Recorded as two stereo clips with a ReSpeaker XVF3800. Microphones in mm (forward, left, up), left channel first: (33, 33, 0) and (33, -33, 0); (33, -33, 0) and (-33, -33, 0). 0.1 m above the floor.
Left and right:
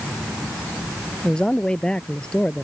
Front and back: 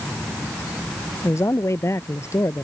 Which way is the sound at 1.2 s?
20° left.